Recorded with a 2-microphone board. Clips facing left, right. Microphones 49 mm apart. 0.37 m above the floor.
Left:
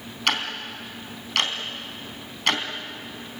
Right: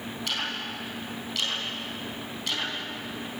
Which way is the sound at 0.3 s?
65° left (ahead or behind).